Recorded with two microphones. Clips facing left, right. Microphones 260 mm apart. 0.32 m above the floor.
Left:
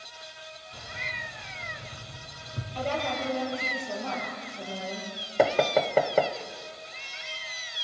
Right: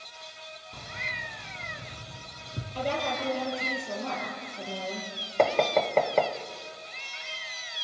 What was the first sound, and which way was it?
Keys jangling, 55° right (ahead or behind).